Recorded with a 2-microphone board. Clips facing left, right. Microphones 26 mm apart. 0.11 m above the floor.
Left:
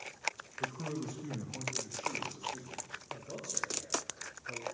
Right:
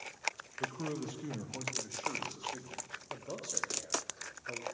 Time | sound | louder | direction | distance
0.6 | a man speaking | even | 40° right (ahead or behind) | 2.5 m
3.1 | a man speaking | right 1 dB | 65° right (ahead or behind) | 5.5 m